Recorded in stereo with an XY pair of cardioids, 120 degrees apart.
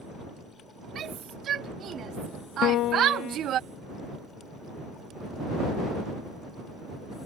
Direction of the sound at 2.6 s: 65° left.